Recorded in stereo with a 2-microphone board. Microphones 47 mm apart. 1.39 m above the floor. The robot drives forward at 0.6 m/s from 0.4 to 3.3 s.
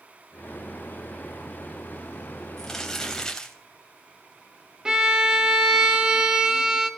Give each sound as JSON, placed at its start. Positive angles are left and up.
{"t": 2.6, "sound": "crumpling", "side_deg": 15, "distance_m": 3.0}
{"t": 4.8, "sound": "a violin", "side_deg": -15, "distance_m": 1.4}